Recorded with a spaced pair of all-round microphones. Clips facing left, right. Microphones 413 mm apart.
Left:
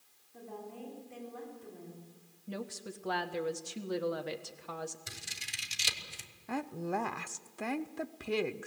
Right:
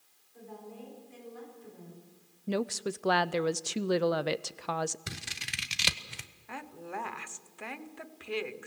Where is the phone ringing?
No phone ringing in this recording.